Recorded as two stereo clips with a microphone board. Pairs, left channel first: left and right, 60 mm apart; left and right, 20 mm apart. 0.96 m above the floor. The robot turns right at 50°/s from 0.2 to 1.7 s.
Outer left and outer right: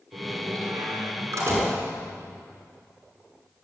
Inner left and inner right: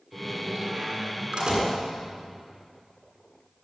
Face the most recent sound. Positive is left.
turn(degrees=-45)